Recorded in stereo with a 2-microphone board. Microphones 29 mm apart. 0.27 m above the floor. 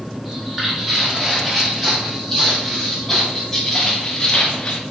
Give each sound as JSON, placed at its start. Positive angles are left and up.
{"t": 0.2, "sound": "footsteps", "side_deg": -5, "distance_m": 4.0}